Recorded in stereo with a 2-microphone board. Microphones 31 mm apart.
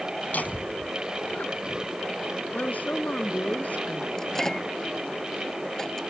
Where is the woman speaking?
65° left (ahead or behind).